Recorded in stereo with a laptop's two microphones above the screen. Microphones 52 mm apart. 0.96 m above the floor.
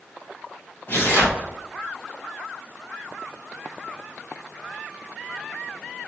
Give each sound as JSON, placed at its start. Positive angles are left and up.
{"t": 0.9, "sound": "tearing paper", "side_deg": 55, "distance_m": 1.6}